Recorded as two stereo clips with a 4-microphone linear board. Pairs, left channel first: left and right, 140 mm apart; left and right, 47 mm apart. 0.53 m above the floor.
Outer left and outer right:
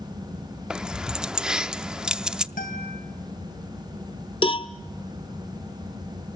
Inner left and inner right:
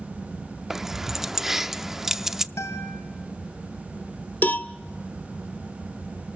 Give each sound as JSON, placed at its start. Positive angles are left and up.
{"t": 0.7, "sound": "keys jangling", "side_deg": -5, "distance_m": 0.5}
{"t": 2.6, "sound": "a guitar", "side_deg": 80, "distance_m": 2.5}
{"t": 4.4, "sound": "a cowbell", "side_deg": 40, "distance_m": 0.7}